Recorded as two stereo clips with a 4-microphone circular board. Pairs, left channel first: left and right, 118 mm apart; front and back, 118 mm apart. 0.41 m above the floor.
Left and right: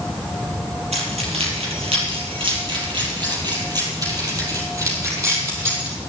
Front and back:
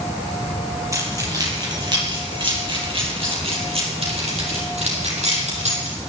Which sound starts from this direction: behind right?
Keys jangling, at 0.9 s.